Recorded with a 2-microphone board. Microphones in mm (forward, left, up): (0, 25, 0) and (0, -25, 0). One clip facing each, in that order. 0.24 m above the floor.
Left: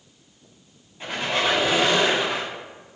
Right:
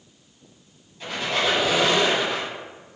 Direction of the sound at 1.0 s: 30° left (ahead or behind).